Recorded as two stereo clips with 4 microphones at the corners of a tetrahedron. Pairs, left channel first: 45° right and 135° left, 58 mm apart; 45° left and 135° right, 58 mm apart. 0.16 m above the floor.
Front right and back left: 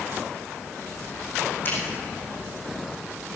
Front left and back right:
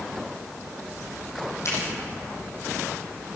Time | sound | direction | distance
1.6 | a finger snap | 10° left | 5.5 m